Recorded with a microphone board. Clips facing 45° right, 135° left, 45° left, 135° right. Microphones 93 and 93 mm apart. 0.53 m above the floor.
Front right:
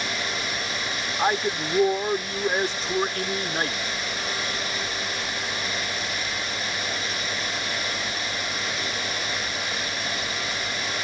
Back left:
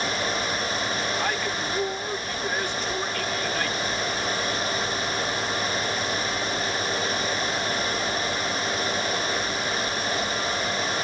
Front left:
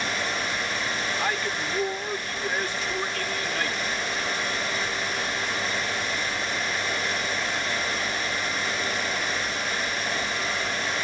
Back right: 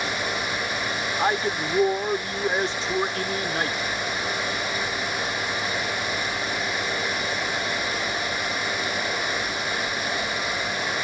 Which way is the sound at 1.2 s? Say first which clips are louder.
Front right 3 dB, back right 8 dB; 85° right.